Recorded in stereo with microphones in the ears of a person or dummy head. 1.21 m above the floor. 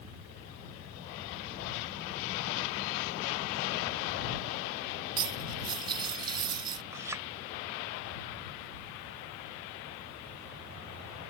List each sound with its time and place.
5.2 s cutlery clinking: 25° right (ahead or behind)
6.9 s a clink: 15° right (ahead or behind)